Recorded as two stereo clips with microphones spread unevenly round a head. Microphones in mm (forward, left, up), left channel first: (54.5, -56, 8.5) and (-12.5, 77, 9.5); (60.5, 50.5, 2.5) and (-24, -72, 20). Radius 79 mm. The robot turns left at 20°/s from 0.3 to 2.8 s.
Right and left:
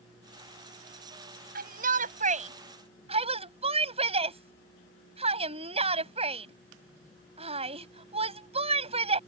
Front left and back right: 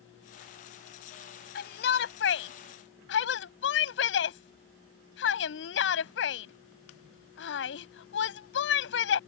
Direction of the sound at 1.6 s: 90° left.